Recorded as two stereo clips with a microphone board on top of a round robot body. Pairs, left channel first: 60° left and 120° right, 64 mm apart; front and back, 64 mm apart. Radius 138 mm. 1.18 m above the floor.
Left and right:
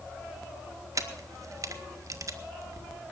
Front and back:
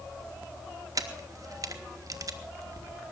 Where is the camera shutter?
155° right, 1.8 m.